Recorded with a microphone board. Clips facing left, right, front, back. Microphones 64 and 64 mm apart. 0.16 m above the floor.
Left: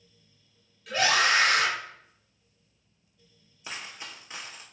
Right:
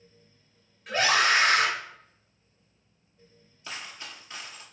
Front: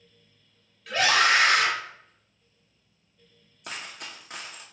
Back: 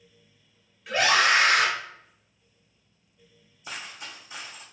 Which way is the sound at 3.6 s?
15° left.